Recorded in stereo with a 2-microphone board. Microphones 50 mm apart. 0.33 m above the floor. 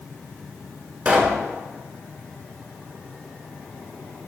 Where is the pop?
30° right (ahead or behind), 0.9 m.